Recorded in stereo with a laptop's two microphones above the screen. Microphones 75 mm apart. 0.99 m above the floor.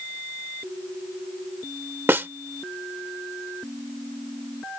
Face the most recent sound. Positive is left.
turn(degrees=-30)  # may be behind; listen again after turning